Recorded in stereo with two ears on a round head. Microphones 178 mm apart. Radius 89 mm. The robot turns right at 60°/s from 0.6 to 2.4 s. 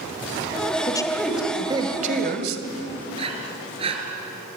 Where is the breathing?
30° right (ahead or behind), 3.5 m.